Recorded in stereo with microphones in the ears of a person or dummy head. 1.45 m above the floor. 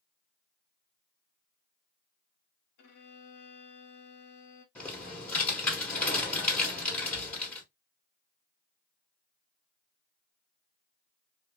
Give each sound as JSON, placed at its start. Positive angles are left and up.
{"t": 2.8, "sound": "a violin", "side_deg": 60, "distance_m": 0.7}
{"t": 4.8, "sound": "typing on a keyboard", "side_deg": 10, "distance_m": 1.2}